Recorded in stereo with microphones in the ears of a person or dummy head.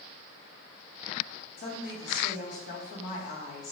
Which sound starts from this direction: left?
A woman speaking, at 1.6 s.